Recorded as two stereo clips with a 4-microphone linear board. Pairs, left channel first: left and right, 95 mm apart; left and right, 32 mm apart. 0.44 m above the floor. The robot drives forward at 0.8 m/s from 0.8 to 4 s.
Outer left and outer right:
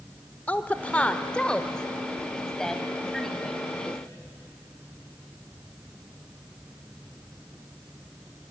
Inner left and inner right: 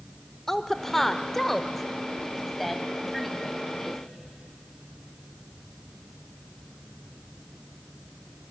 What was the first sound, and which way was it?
A woman speaking, 15° left (ahead or behind).